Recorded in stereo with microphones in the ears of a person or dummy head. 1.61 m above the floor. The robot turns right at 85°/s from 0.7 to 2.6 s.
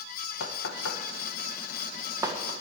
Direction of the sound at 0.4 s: 65° left (ahead or behind).